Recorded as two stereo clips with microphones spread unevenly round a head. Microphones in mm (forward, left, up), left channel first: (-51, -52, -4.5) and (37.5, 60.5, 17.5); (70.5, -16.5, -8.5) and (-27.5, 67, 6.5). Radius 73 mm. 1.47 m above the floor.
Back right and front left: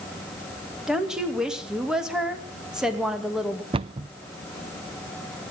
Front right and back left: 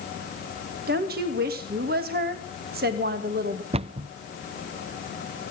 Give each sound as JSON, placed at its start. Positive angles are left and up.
{"t": 0.9, "sound": "a woman speaking", "azimuth_deg": 140, "distance_m": 2.5}
{"t": 3.7, "sound": "a cupboard door", "azimuth_deg": 100, "distance_m": 0.6}